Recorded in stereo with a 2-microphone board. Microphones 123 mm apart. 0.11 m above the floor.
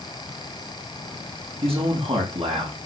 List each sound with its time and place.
1.6 s a man speaking: 55° right (ahead or behind), 6 m